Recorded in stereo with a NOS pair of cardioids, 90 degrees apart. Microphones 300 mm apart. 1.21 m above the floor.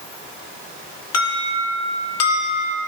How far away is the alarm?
About 2.5 m.